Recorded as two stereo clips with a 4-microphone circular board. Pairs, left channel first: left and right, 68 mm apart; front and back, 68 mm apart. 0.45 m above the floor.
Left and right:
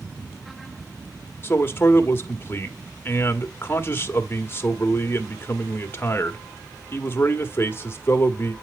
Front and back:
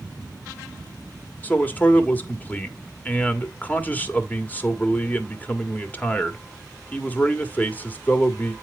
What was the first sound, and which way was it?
A man speaking, 55° left.